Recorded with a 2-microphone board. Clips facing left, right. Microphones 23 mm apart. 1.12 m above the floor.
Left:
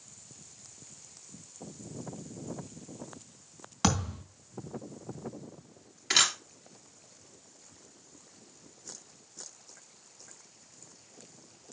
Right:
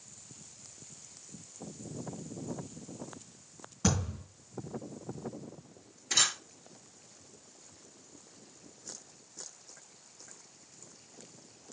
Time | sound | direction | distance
3.8 | a thud | 65° left (ahead or behind) | 3 m
6.1 | a camera shutter | 85° left | 2.0 m